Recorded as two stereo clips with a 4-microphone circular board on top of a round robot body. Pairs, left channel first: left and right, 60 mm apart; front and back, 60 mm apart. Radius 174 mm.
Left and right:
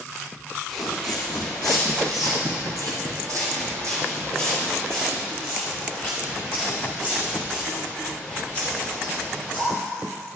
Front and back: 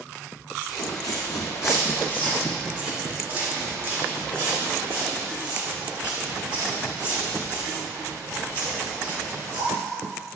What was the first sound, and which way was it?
Footsteps, 5° left.